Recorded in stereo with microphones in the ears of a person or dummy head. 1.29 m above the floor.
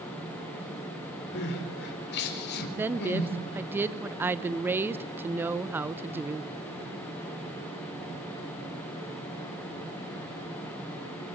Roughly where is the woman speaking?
Centre.